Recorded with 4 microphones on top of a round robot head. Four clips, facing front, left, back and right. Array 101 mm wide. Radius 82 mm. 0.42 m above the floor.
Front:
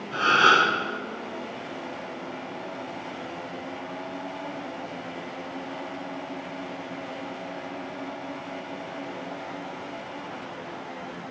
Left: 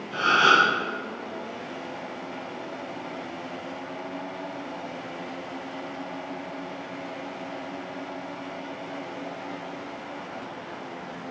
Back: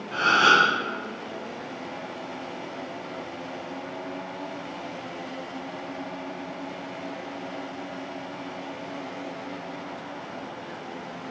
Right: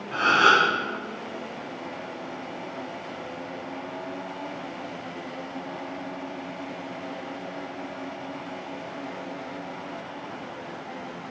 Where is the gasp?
125° right, 1.5 m.